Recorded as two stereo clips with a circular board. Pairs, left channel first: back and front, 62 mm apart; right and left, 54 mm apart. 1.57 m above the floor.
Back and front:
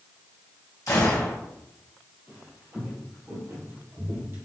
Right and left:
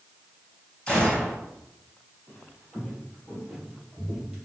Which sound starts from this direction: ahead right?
Footsteps, at 2.3 s.